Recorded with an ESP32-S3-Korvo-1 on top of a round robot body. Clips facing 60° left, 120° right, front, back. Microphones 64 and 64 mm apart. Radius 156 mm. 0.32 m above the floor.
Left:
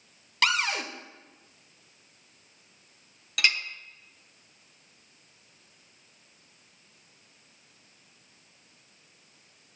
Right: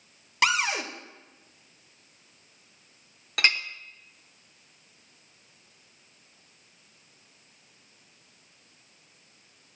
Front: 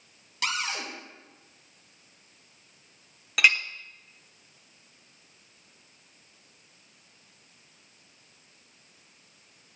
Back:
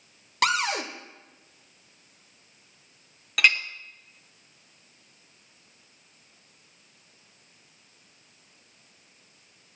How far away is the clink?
About 1.0 m.